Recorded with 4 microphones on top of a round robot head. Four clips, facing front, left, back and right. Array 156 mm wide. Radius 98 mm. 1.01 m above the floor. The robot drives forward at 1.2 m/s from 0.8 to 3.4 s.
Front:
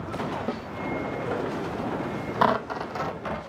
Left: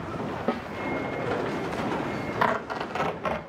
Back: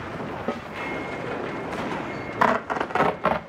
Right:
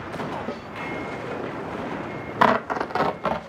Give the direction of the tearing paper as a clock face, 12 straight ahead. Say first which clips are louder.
Right 8 dB, back 2 dB; 3 o'clock.